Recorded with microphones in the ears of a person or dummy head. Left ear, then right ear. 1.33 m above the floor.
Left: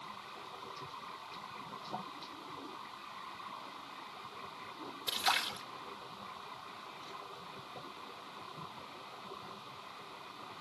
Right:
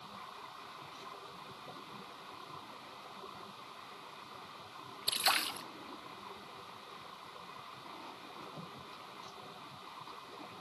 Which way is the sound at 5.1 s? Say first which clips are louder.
Right 1 dB; 15° right (ahead or behind).